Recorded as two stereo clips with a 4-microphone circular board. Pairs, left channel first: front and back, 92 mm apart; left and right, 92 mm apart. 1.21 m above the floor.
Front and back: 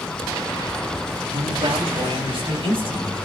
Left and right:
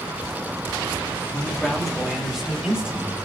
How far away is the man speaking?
About 3 m.